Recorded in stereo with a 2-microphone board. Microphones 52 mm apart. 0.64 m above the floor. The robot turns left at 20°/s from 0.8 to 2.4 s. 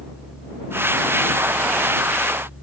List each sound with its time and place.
Only background noise.